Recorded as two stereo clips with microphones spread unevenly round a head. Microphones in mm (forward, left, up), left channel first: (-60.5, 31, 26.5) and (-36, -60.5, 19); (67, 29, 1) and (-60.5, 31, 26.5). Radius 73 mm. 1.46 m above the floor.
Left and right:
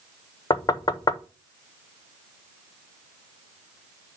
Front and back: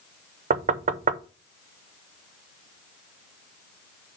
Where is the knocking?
155° left, 0.6 m.